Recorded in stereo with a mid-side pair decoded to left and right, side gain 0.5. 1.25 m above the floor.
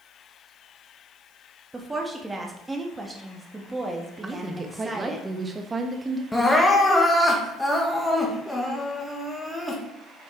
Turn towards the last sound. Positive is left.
turn(degrees=5)